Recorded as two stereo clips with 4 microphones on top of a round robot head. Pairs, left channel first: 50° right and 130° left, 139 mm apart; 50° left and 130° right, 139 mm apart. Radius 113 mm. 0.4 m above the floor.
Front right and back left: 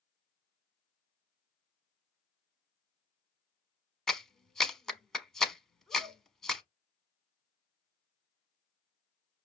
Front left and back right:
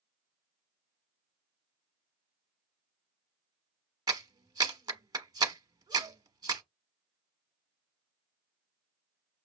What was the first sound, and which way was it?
A clap, 135° right.